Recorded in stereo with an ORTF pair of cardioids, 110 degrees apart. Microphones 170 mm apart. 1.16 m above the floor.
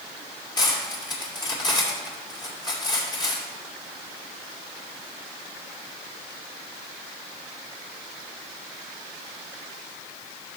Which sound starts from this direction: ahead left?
Cutlery clinking, at 0.6 s.